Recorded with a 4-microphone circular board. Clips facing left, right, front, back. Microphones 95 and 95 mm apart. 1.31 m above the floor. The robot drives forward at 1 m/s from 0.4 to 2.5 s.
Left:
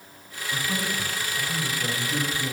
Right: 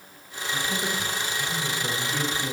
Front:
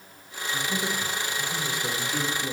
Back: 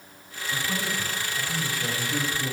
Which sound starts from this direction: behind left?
A man speaking, at 0.5 s.